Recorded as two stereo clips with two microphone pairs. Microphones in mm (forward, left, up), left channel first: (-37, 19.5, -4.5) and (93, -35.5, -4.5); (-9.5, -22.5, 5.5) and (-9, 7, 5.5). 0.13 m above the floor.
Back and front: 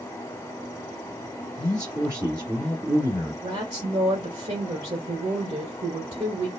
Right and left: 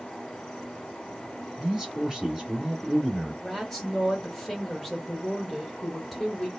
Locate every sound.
1.6 s a man speaking: 30° left, 1.9 m
3.4 s a woman speaking: 15° right, 1.3 m